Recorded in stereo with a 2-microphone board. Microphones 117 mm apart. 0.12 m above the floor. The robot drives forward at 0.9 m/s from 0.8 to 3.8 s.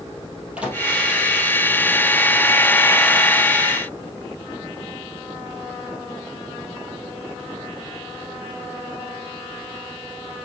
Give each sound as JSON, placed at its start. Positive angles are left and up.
{"t": 0.6, "sound": "a microwave", "side_deg": -10, "distance_m": 3.0}